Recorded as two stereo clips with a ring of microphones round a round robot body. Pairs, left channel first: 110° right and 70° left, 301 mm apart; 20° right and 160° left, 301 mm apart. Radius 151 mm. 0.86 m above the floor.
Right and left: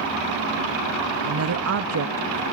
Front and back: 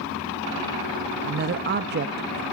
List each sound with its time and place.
1.2 s a woman speaking: 105° left, 0.9 m